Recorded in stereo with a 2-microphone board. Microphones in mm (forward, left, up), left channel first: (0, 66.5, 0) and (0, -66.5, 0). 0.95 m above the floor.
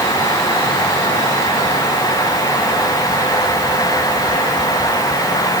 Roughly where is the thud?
I don't hear a thud.